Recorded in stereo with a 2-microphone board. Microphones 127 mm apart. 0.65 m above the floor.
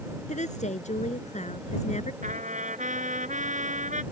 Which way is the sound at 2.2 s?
75° right (ahead or behind).